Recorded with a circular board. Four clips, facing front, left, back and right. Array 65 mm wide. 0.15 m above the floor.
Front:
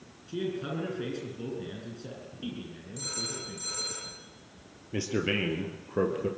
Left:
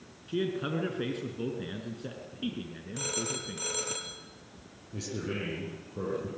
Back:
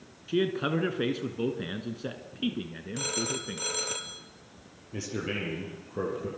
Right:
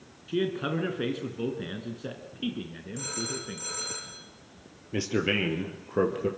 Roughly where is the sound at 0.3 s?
Behind.